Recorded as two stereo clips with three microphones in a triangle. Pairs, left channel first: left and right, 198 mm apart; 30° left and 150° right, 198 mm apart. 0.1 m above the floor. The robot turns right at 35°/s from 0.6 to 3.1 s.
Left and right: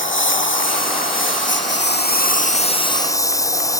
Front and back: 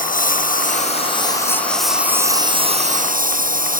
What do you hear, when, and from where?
0.0 s a lawn mower: 75° left; by 3.8 s 165° left